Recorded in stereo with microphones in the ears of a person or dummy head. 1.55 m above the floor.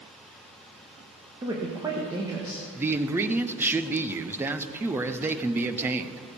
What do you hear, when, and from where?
1.4 s a woman speaking: 15° right (ahead or behind), 1.3 m
2.8 s a man speaking: 15° right (ahead or behind), 0.6 m